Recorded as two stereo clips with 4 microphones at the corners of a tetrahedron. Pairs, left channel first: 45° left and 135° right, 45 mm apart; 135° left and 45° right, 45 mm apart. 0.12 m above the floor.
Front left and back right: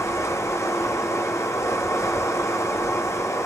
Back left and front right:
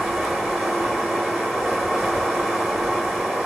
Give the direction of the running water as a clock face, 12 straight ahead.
11 o'clock.